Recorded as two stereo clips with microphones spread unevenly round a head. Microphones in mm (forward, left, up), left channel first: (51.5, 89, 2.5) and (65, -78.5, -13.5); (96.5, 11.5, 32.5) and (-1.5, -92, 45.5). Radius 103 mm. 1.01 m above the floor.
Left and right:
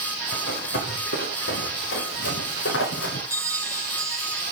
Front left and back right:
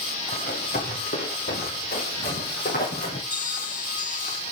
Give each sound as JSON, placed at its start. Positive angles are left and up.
{"t": 0.3, "sound": "running footsteps", "azimuth_deg": 85, "distance_m": 6.5}
{"t": 3.3, "sound": "a bell", "azimuth_deg": -15, "distance_m": 3.5}